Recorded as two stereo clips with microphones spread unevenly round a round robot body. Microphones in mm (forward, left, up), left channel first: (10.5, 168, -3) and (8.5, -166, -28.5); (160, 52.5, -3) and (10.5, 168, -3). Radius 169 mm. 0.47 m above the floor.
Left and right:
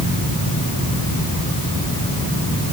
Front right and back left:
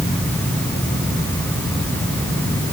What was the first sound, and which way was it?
Only background noise.